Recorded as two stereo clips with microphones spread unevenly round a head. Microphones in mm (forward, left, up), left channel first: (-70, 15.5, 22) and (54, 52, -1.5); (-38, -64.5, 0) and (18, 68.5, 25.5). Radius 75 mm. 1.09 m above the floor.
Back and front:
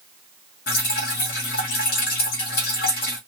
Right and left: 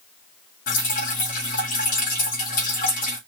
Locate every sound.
0.7 s dripping: 130° right, 2.5 m